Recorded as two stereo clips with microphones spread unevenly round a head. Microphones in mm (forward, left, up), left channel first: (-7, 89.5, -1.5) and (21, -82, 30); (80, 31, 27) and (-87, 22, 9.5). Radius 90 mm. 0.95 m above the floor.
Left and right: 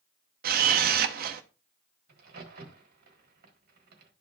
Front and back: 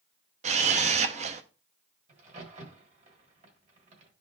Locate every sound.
0.4 s a camera shutter: 120° right, 0.6 m
2.1 s a crack: 125° right, 1.6 m